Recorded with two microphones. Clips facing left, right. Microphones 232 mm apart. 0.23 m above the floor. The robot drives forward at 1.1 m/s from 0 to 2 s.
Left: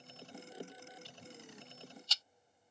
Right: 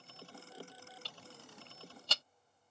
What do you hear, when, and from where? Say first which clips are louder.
1.1 s ticking: left 2 dB; 80° right; by 2.2 s 65° right (ahead or behind)